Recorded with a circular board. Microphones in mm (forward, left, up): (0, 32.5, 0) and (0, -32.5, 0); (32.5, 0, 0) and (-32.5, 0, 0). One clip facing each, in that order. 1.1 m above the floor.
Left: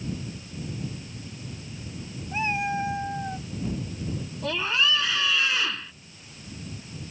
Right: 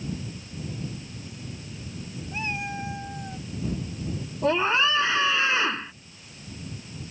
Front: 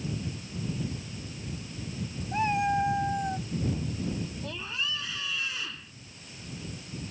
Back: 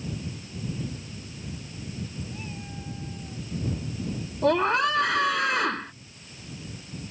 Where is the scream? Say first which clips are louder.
Right 4 dB, back 14 dB; 150° right.